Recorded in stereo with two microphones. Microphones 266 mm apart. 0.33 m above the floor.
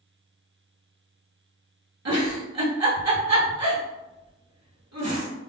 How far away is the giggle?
About 1.2 m.